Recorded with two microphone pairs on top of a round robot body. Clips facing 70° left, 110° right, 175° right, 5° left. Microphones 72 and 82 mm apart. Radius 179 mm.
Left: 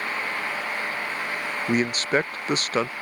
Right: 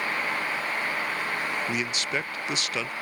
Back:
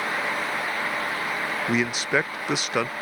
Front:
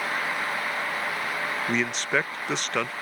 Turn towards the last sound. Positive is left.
turn(degrees=95)